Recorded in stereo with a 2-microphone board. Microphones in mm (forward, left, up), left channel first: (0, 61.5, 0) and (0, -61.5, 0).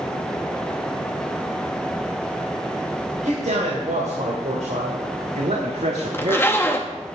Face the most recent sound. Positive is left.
turn(degrees=20)  # may be behind; listen again after turning